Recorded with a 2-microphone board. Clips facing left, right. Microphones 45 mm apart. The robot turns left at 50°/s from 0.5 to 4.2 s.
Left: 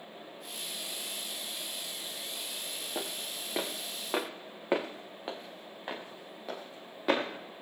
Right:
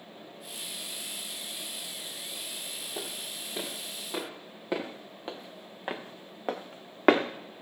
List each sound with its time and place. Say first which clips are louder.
3.0 s footsteps: left 2 dB; 65° left (ahead or behind), 4 m; by 7.2 s 60° right (ahead or behind), 2.5 m